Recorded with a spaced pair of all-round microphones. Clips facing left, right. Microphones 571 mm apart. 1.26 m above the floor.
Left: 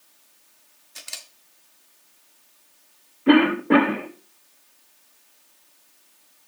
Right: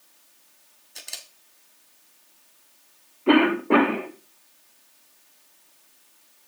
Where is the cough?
40° left (ahead or behind), 1.3 m.